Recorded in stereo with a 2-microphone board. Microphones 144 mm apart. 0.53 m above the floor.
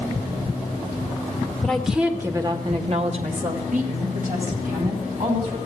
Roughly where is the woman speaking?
Centre.